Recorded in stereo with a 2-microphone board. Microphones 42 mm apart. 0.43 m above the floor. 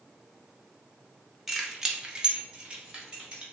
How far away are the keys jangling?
About 0.7 m.